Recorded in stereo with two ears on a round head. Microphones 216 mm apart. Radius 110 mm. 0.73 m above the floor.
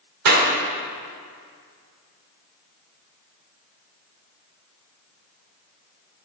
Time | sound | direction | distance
0.2 | a clap | 75° right (ahead or behind) | 1.9 m